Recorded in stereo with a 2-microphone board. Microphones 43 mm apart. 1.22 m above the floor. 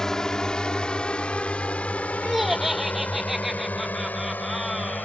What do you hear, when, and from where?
0.0 s a drone: 15° left (ahead or behind); by 5.0 s 50° left (ahead or behind)
2.2 s laughter: 5° right (ahead or behind)